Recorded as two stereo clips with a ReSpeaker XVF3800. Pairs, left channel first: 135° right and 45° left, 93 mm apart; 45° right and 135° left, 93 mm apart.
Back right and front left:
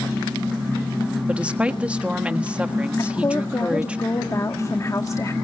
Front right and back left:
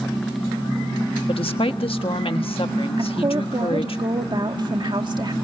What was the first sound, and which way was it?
A woman speaking, 30° right.